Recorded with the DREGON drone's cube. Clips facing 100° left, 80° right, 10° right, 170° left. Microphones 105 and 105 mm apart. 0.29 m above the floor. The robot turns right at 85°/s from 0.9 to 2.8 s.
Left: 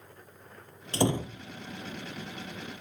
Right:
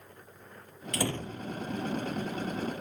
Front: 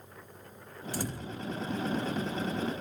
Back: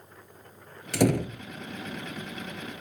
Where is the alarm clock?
I don't hear an alarm clock.